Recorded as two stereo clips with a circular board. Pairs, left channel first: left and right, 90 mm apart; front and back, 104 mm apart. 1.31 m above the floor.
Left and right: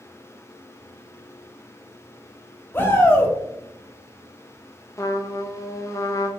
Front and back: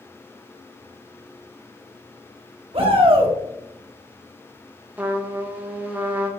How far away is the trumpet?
About 0.6 m.